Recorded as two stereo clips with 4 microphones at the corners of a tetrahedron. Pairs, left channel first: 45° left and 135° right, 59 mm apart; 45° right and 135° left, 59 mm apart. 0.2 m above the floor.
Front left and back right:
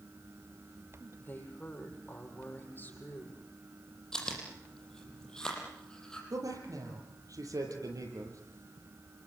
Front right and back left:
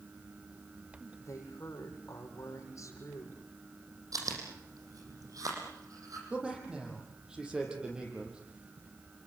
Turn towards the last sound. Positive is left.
turn(degrees=-145)